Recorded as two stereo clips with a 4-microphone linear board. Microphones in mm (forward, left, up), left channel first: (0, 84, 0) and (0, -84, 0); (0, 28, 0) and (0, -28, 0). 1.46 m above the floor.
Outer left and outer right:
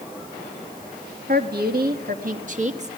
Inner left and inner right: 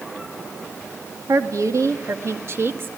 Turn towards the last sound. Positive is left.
turn(degrees=-40)  # may be behind; listen again after turning